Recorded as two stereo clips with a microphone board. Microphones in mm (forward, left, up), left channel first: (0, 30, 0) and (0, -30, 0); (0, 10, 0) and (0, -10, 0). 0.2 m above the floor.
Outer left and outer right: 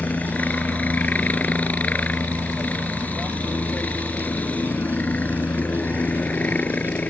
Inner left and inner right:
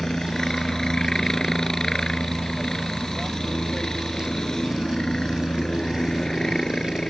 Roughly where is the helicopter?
Left.